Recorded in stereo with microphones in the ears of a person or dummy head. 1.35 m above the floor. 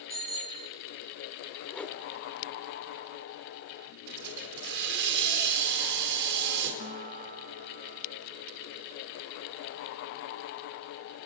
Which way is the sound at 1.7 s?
10° left (ahead or behind).